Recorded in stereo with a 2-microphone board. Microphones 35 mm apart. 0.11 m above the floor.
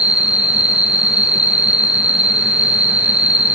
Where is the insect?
40° right (ahead or behind), 0.8 m.